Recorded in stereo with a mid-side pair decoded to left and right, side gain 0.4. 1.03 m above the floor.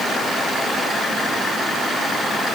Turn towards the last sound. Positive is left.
No sound to turn to.